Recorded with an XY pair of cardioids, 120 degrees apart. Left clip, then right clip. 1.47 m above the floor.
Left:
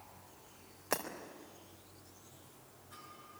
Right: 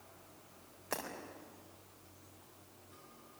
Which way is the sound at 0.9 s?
30° left.